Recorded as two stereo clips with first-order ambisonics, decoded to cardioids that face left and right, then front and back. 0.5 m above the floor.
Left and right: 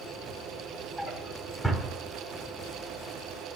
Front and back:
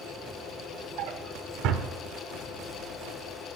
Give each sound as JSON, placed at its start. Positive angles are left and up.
{"t": 1.0, "sound": "a drawer", "azimuth_deg": 175, "distance_m": 0.8}